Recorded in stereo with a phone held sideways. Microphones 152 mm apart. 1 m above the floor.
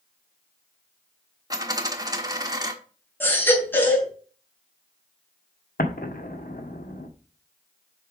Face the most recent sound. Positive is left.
turn(degrees=80)